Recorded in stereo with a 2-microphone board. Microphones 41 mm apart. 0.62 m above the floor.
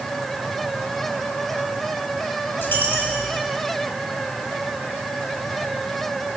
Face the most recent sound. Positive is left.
turn(degrees=55)  # may be behind; listen again after turning